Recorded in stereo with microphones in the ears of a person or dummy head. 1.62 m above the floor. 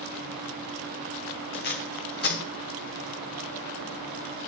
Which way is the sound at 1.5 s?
50° left (ahead or behind).